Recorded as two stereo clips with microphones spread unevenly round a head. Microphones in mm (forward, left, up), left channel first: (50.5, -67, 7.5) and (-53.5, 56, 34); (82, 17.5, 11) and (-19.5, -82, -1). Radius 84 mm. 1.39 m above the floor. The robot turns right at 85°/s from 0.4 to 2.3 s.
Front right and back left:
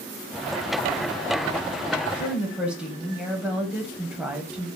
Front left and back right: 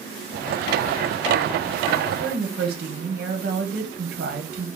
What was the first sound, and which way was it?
A woman speaking, 155° right.